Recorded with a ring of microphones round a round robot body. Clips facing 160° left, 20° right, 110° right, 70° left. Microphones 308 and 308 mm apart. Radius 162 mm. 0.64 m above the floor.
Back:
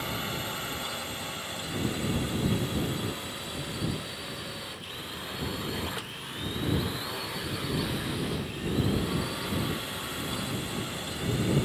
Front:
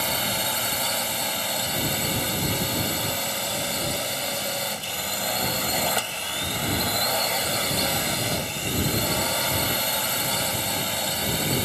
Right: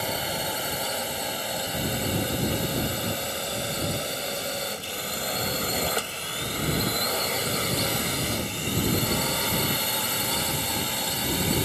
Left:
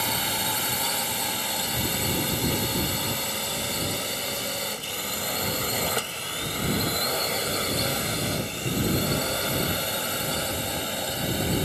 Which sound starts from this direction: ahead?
A drone, at 0.0 s.